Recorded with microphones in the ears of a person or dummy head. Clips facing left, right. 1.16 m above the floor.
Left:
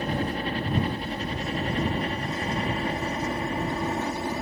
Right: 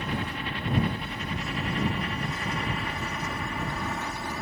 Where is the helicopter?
30° left (ahead or behind); by 4.4 s 25° left (ahead or behind).